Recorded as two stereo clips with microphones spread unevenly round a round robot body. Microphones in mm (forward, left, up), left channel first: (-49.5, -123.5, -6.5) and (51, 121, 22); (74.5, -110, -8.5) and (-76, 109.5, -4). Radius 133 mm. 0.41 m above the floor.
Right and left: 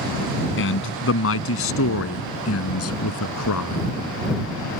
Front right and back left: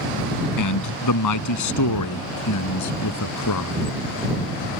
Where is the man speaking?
70° right; by 4.0 s 85° right.